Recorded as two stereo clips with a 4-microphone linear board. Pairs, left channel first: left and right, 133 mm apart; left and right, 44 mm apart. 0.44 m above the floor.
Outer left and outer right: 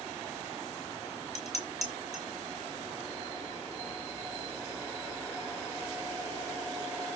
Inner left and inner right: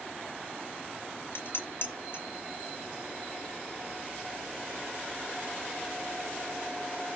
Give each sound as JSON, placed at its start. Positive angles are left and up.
{"t": 1.4, "sound": "dishes clattering", "side_deg": 55, "distance_m": 4.5}